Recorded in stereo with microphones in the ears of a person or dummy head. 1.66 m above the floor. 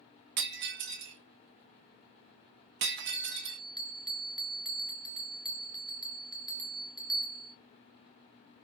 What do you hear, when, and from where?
0.4 s breaking glass: 50° right (ahead or behind), 1.1 m
3.1 s a bell: 25° left (ahead or behind), 0.6 m